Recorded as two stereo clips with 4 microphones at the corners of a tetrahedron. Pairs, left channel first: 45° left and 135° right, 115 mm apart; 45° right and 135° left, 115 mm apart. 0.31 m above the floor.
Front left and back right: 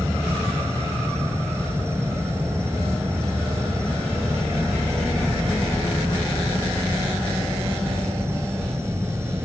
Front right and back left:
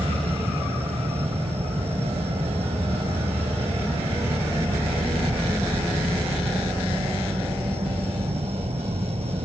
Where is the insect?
160° left.